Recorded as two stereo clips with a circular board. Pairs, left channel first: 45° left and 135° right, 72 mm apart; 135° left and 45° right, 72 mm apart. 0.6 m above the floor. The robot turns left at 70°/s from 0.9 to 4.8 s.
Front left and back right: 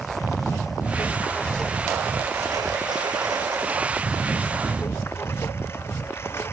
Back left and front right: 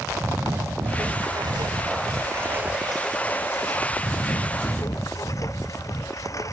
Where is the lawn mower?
10° left; by 6.5 s 95° left.